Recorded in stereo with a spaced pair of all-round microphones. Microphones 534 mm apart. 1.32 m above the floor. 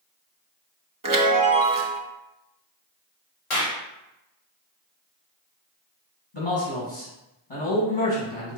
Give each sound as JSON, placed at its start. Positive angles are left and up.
{"t": 1.0, "sound": "a chime", "side_deg": -40, "distance_m": 0.7}
{"t": 3.5, "sound": "a clap", "side_deg": 70, "distance_m": 1.3}
{"t": 6.3, "sound": "a man speaking", "side_deg": 70, "distance_m": 1.5}